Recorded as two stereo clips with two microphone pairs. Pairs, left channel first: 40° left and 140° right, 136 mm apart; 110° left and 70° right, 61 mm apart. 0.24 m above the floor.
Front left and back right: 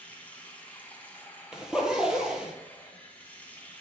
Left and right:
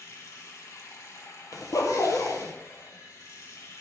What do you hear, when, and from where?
0.0 s running water: 115° left, 1.9 m
1.5 s a zipper: 135° left, 1.7 m